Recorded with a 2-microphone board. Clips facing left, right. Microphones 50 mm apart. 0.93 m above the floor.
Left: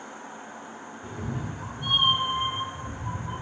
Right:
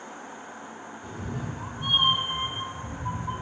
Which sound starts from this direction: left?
A cat meowing, at 1.0 s.